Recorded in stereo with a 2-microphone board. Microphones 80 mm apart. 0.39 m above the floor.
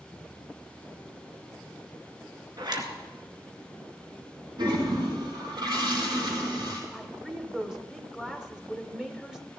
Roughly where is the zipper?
Right.